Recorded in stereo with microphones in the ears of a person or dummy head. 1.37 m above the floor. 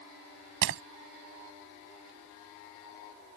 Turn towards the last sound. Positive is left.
turn(degrees=-55)  # may be behind; listen again after turning